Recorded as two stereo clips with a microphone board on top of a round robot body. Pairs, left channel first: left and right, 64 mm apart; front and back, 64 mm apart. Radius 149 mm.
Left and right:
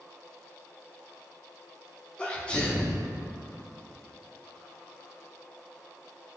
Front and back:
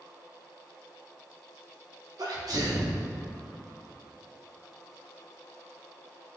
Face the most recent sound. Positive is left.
turn(degrees=165)